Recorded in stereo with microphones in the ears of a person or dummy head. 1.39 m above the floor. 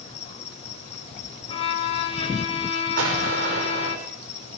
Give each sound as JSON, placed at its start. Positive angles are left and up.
{"t": 0.0, "sound": "an insect", "side_deg": 35, "distance_m": 3.0}
{"t": 1.5, "sound": "a violin", "side_deg": 35, "distance_m": 3.0}
{"t": 3.0, "sound": "an explosion", "side_deg": -80, "distance_m": 6.0}